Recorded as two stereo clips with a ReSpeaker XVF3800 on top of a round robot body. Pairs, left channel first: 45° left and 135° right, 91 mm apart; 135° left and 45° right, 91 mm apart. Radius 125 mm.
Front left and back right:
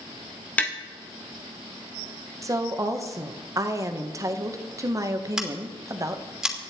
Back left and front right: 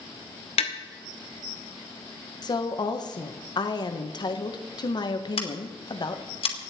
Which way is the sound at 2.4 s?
175° left.